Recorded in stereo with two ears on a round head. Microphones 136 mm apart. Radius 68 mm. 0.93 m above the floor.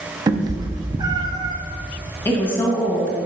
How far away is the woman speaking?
About 1.3 m.